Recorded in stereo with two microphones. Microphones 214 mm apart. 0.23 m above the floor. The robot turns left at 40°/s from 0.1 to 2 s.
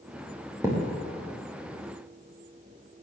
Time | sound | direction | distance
0.6 | a thud | 15° right (ahead or behind) | 5 m